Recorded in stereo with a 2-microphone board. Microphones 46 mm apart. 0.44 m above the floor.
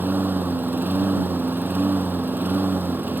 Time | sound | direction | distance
0.0 | a lawn mower | 40° right (ahead or behind) | ?